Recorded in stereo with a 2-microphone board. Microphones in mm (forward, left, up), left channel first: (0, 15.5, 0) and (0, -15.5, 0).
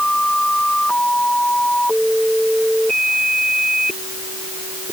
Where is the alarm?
No alarm in this recording.